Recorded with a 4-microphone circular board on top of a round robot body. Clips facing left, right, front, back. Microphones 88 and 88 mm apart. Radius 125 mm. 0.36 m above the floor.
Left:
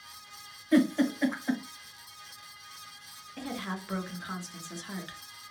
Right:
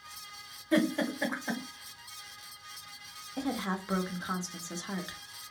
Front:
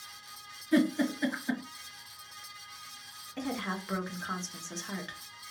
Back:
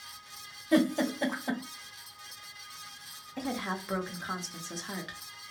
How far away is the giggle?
About 1.5 m.